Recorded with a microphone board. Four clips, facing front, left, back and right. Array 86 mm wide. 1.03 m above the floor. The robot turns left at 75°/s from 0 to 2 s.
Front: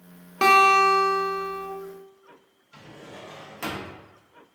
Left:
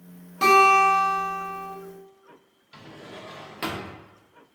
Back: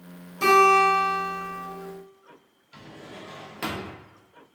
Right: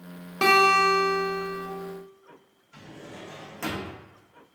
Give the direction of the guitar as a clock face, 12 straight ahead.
1 o'clock.